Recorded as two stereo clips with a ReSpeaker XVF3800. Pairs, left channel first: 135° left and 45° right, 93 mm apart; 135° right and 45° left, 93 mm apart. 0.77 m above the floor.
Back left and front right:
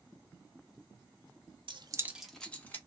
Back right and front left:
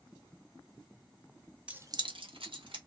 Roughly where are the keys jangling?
Ahead right.